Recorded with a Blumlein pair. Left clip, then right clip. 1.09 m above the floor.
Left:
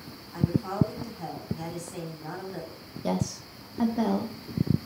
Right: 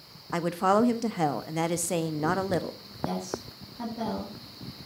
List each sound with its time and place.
0.3 s a woman speaking: 40° right, 1.2 m
3.0 s a woman speaking: 65° left, 2.0 m